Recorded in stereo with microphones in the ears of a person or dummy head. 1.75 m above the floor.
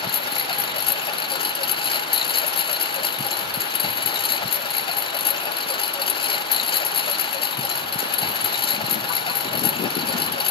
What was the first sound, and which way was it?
A lawn mower, 25° left (ahead or behind).